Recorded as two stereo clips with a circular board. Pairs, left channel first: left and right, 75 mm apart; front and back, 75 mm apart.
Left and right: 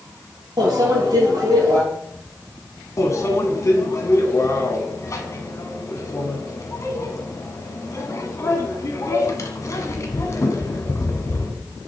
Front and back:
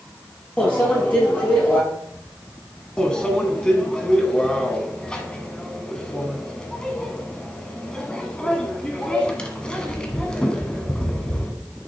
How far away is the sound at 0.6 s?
About 3.5 m.